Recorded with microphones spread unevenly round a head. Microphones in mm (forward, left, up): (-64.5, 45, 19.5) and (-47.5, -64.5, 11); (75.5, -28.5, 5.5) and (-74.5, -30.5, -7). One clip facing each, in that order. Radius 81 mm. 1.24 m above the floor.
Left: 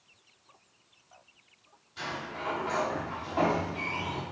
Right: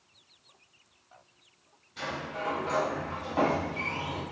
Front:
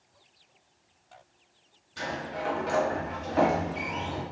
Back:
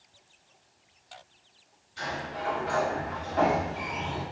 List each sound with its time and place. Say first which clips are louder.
2.0 s a sliding door: right 2 dB, front 1 dB; 20° right, 1.7 m